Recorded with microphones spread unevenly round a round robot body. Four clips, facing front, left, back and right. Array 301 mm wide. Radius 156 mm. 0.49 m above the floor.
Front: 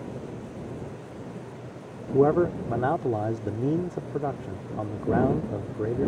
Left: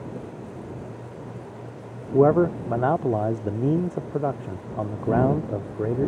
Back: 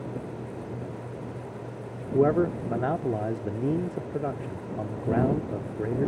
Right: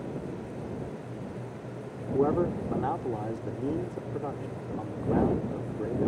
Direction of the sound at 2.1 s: 80° left.